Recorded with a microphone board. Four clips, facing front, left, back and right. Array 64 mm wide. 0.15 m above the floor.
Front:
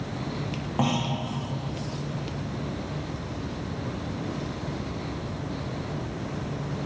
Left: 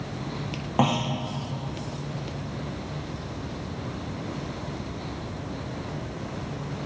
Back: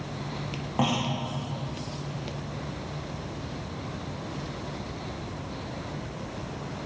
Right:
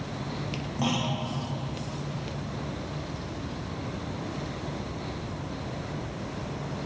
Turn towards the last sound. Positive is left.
turn(degrees=90)